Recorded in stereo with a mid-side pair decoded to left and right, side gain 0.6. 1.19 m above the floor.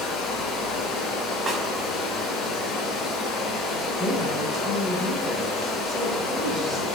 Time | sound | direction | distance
0.0 | running water | 65° left | 1.0 m
1.5 | a snare drum | 35° right | 1.3 m
4.0 | a woman speaking | 15° right | 0.9 m